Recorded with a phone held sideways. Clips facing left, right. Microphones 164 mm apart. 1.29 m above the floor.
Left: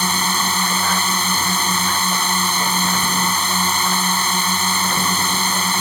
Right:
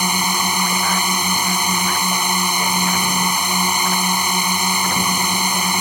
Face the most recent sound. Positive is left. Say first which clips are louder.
# right 1 dB
turn(degrees=-15)  # may be behind; listen again after turning